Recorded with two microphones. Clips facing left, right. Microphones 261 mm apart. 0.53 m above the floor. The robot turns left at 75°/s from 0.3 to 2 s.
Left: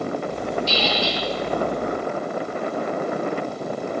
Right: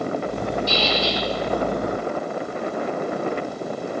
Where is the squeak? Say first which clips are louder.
Right 1 dB; 60° right, 7 m; by 1.2 s 100° right, 7 m.